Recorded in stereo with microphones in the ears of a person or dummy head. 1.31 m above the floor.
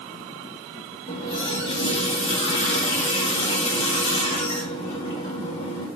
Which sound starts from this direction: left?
A running tap, at 1.1 s.